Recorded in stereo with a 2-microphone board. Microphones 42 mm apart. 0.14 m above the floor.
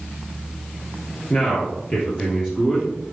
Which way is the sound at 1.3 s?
40° left (ahead or behind).